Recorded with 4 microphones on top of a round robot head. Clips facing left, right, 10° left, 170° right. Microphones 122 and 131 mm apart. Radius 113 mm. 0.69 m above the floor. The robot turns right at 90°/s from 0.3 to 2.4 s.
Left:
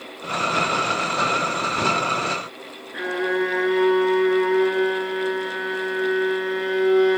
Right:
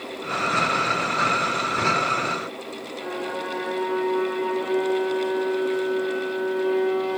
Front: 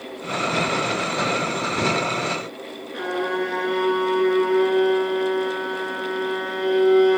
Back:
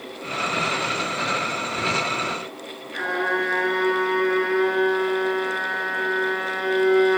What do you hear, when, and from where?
2.9 s a violin: 85° left, 8 m